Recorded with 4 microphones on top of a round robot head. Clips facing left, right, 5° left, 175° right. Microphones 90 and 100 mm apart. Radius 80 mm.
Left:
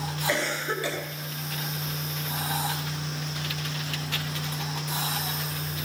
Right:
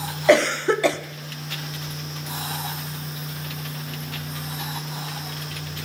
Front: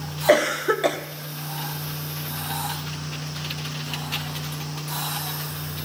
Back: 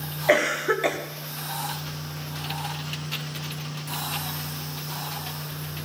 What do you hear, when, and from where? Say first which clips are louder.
0.3 s a cough: right 13 dB, front 3 dB; 65° right, 0.9 m